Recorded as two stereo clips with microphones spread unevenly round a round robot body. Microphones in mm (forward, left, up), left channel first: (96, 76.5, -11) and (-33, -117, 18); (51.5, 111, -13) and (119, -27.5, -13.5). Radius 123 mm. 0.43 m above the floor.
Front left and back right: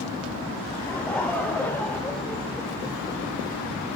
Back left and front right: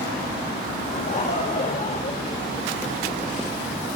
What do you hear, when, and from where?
0.9 s laughter: 130° left, 1.3 m